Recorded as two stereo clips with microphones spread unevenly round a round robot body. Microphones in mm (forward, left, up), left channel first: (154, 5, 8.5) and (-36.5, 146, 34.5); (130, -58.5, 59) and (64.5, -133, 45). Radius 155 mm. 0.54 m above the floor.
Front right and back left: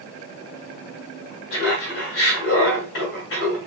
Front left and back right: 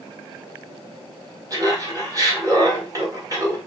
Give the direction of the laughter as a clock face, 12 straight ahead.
3 o'clock.